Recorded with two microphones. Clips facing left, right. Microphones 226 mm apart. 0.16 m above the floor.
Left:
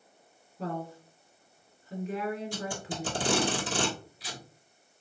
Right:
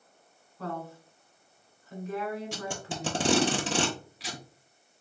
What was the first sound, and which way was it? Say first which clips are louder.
A woman speaking: left 2 dB; 20° left (ahead or behind).